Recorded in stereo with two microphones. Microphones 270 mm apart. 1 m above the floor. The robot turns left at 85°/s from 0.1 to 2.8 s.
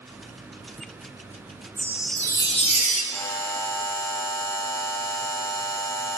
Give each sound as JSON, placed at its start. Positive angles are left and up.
{"t": 1.8, "sound": "a chime", "azimuth_deg": -155, "distance_m": 0.7}
{"t": 3.1, "sound": "a buzzer", "side_deg": 10, "distance_m": 0.8}